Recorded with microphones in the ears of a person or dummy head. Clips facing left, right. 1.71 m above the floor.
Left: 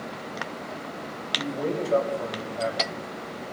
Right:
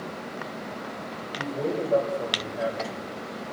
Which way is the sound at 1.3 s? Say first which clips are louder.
Even; 15° right (ahead or behind).